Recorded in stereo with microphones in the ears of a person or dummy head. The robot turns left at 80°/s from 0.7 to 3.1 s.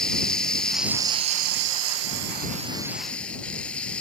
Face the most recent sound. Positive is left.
turn(degrees=170)